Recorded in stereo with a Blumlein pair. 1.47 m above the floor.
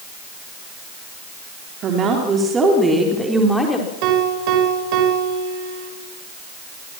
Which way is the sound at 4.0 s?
40° right.